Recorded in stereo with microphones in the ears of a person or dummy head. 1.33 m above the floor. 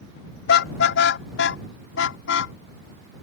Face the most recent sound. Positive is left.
turn(degrees=65)  # may be behind; listen again after turning